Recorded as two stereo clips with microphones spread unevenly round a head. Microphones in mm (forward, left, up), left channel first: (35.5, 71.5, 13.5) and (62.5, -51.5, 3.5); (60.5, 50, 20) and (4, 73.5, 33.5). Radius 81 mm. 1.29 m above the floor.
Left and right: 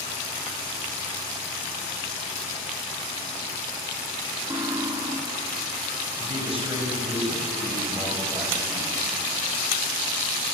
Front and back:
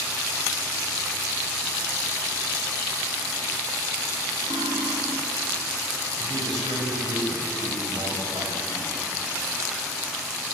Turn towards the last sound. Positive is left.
turn(degrees=-160)